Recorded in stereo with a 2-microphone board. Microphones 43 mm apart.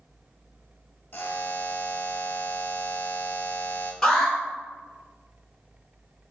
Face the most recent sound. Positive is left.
turn(degrees=5)  # may be behind; listen again after turning